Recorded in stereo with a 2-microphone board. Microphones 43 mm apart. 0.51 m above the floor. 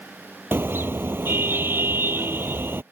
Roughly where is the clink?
I don't hear a clink.